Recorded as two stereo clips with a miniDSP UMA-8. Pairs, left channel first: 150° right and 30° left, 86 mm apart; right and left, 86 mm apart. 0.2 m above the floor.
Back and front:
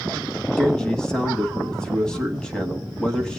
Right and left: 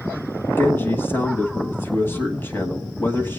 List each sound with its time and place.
0.6 s a man speaking: 80° right, 1.1 m